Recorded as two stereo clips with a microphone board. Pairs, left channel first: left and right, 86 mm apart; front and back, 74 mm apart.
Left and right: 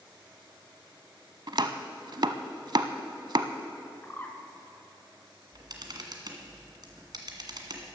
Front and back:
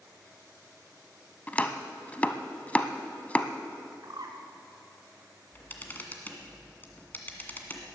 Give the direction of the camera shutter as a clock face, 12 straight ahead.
2 o'clock.